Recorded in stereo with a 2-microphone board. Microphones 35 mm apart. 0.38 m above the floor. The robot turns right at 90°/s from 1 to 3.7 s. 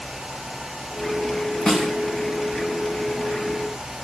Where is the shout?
No shout in this recording.